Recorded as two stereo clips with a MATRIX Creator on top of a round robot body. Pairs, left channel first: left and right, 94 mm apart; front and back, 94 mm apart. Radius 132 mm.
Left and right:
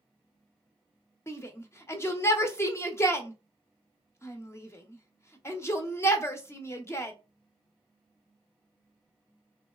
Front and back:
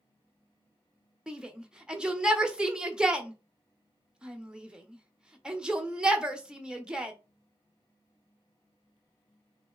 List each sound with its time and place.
1.3 s a shout: 105° left, 1.0 m